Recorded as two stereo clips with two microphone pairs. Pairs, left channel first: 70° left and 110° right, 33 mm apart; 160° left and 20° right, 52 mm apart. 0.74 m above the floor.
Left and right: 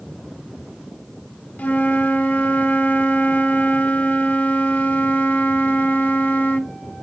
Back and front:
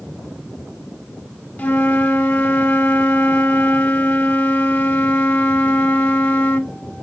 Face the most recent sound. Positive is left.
turn(degrees=105)